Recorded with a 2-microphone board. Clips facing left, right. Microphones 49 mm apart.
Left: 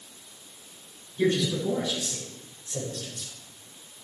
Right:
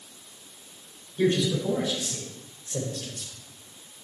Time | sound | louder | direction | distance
1.2 | a man speaking | right 1 dB | 30° right (ahead or behind) | 6.5 m